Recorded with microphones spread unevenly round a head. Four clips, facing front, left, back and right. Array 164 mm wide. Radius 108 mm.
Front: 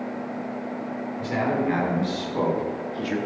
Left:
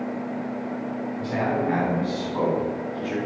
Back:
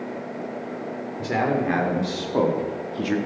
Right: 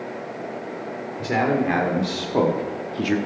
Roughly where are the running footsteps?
No running footsteps in this recording.